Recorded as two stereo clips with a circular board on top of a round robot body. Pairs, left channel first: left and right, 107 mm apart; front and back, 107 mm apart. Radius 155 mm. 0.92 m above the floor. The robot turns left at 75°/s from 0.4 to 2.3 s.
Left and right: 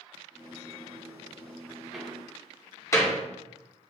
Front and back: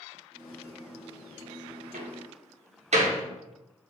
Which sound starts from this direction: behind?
A door slam, at 1.9 s.